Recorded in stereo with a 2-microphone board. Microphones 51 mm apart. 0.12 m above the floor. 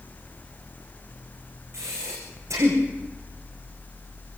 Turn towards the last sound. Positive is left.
turn(degrees=-70)  # may be behind; listen again after turning